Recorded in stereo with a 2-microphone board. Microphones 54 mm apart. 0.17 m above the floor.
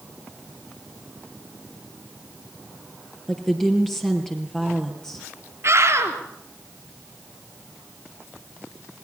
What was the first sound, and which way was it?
A woman speaking, 10° left (ahead or behind).